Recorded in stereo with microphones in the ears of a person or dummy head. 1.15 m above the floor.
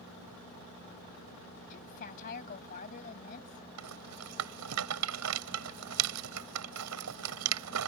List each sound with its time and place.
1.7 s a woman speaking: 45° left (ahead or behind)
3.8 s a rattle: 85° right